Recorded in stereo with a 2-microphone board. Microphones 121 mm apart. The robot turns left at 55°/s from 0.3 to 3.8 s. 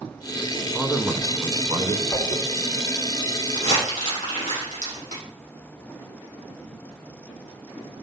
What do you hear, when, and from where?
0.7 s a man speaking: straight ahead, 1.3 m; by 2.0 s 70° right, 1.3 m
2.1 s a whoosh: 10° left (ahead or behind), 2 m; by 2.4 s 20° left (ahead or behind), 2 m
3.5 s crumpling: 60° left (ahead or behind), 6.5 m; by 5.2 s 70° left (ahead or behind), 6.5 m